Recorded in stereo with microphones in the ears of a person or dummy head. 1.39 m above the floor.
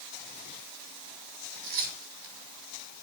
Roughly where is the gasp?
No gasp in this recording.